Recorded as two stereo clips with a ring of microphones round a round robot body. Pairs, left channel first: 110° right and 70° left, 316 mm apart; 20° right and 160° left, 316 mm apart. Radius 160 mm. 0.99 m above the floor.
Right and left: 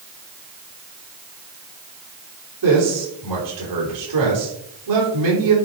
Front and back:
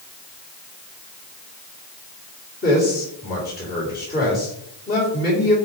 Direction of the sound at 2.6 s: 40° left.